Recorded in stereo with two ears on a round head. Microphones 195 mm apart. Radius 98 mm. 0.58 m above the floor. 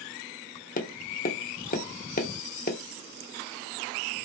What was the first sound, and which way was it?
Tapping, 40° left (ahead or behind).